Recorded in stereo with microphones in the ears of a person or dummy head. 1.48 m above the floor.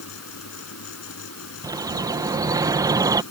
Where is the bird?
15° right (ahead or behind).